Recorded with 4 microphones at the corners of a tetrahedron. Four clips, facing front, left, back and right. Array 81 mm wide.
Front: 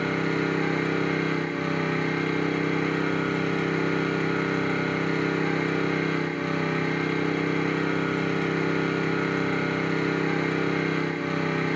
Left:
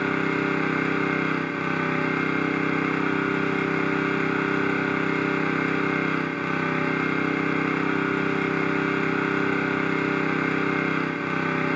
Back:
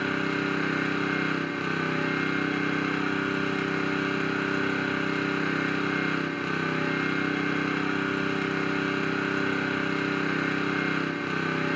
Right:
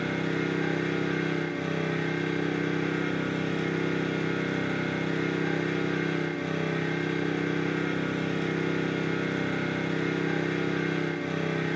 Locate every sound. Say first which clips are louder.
0.0 s an engine running: left 5 dB, front 2 dB; 90° left, 1.6 m